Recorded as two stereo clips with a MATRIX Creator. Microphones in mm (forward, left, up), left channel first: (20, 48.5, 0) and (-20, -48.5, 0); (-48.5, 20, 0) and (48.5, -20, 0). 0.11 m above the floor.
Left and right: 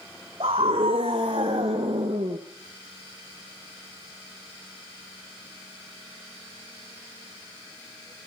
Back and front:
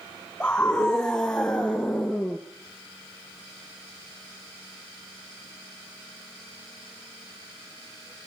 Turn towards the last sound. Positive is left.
turn(degrees=-110)